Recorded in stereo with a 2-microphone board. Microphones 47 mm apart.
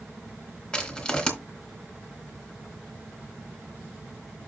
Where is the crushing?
15° left (ahead or behind), 3 m.